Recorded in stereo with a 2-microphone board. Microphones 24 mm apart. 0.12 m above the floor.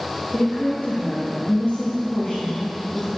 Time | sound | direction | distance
0.3 | a woman speaking | 35° left (ahead or behind) | 4 m